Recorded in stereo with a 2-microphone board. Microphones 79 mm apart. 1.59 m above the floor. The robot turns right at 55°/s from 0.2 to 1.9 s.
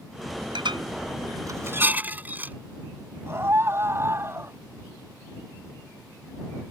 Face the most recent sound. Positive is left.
turn(degrees=-35)  # may be behind; listen again after turning